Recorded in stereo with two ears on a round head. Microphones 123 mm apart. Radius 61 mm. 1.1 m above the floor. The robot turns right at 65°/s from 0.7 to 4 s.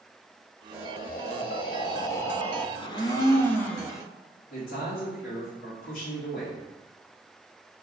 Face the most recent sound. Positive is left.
turn(degrees=75)  # may be behind; listen again after turning